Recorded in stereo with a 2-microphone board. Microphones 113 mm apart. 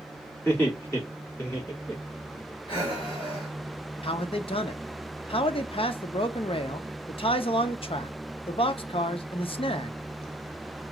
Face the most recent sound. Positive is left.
turn(degrees=55)  # may be behind; listen again after turning